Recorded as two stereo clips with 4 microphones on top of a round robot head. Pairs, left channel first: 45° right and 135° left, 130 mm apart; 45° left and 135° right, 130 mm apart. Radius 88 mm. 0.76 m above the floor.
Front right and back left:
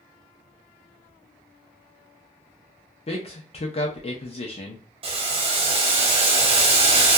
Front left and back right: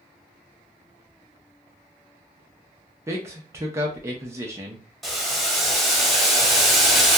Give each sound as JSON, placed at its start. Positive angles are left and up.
{"t": 3.1, "sound": "a man speaking", "azimuth_deg": -70, "distance_m": 0.6}
{"t": 5.0, "sound": "boiling", "azimuth_deg": 140, "distance_m": 0.9}